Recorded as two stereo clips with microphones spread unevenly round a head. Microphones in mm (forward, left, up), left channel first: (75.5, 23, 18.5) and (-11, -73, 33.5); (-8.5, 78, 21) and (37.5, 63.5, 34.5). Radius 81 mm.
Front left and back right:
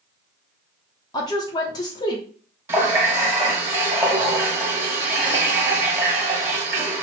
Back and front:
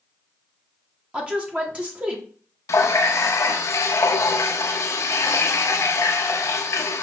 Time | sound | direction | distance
1.1 | a woman speaking | 55° left | 0.8 m
2.7 | a running tap | 150° left | 0.6 m